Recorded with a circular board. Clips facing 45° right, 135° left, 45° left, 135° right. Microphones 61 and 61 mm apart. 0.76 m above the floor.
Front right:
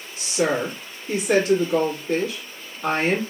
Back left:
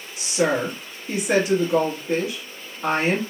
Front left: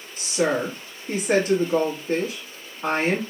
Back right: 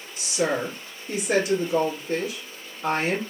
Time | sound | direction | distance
0.2 | a woman speaking | 70° left | 1.4 m